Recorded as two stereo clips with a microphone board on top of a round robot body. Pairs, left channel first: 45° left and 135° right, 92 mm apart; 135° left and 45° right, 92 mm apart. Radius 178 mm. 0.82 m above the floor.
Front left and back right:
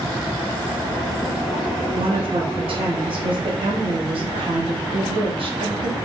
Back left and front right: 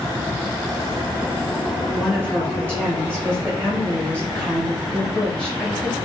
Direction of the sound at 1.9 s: 115° right.